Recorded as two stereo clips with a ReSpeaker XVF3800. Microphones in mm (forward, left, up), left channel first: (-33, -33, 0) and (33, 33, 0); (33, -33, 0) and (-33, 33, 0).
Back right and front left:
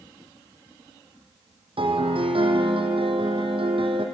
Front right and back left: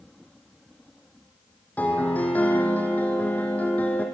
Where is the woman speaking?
No woman speaking in this recording.